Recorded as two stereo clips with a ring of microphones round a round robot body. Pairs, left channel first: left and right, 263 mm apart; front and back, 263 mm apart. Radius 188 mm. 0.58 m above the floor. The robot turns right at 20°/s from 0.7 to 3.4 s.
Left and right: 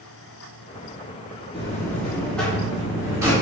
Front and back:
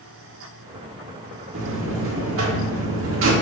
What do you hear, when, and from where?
1.5 s a buzzer: 160° left, 1.6 m; by 3.3 s 165° right, 1.6 m